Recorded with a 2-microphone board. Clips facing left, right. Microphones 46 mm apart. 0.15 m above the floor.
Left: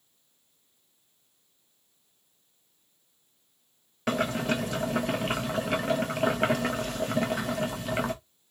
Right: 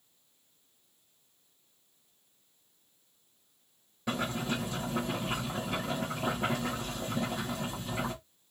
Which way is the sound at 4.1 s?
70° left (ahead or behind).